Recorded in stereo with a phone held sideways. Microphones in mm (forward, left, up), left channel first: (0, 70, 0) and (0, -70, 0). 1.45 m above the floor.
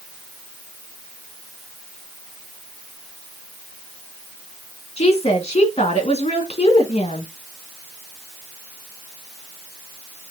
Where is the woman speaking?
45° left (ahead or behind), 2.0 m.